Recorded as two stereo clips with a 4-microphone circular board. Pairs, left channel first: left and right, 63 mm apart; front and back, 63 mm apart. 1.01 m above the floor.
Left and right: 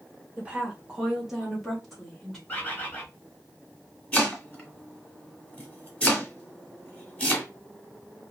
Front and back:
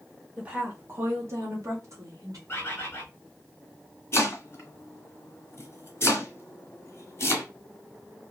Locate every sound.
0.4 s a woman speaking: 125° right, 0.8 m; by 2.4 s 175° left, 1.5 m
2.5 s a bird: 35° left, 0.8 m
4.1 s chopping: 30° left, 1.1 m